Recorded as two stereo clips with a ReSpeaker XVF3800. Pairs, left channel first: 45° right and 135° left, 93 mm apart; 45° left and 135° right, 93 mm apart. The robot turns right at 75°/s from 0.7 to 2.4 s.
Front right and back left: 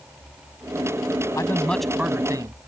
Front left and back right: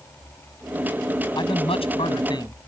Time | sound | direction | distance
1.4 | a man speaking | 10° left | ?